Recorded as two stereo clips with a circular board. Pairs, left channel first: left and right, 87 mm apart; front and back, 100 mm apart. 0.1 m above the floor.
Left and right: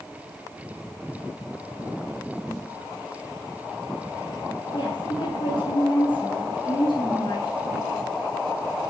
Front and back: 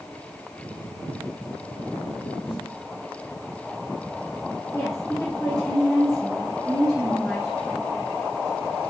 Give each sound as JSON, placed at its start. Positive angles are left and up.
{"t": 2.5, "sound": "a snare drum", "azimuth_deg": 35, "distance_m": 3.5}
{"t": 4.7, "sound": "a woman speaking", "azimuth_deg": 85, "distance_m": 4.5}